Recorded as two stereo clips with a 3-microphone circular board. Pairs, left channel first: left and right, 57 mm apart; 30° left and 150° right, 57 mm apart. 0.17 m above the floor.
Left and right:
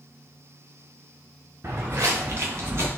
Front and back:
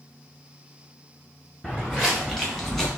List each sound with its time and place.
1.6 s footsteps: 45° right, 1.0 m; by 2.9 s 50° right, 2 m